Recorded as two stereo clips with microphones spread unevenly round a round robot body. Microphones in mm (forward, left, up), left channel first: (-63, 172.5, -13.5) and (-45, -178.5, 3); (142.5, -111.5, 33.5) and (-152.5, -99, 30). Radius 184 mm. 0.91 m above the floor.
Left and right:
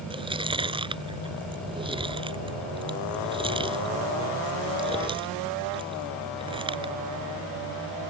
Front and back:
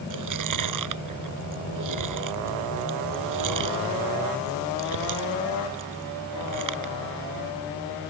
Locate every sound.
0.1 s chewing: 165° right